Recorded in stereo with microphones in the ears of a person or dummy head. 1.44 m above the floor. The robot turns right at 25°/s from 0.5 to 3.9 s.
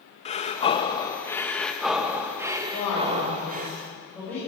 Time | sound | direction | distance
0.2 | breathing | 145° left | 1.5 m
2.7 | a man speaking | 40° left (ahead or behind) | 8 m